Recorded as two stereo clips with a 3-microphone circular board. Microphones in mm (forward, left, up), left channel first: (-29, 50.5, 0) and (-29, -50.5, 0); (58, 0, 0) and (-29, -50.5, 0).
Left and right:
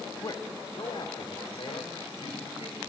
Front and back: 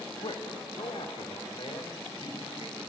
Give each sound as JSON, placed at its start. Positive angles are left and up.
{"t": 0.2, "sound": "a man speaking", "azimuth_deg": 45, "distance_m": 1.4}